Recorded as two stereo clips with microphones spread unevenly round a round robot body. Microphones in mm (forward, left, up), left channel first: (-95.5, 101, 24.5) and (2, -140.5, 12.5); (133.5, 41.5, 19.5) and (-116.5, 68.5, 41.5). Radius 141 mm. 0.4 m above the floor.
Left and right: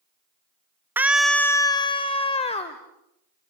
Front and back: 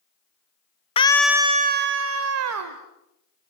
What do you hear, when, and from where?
1.0 s a scream: straight ahead, 0.8 m; by 2.8 s straight behind, 1.7 m